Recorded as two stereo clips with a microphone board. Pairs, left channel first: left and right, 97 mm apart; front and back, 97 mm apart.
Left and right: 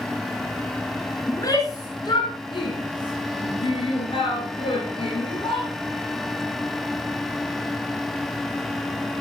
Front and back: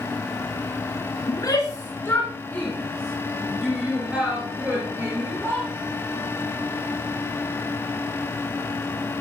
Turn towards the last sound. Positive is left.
turn(degrees=115)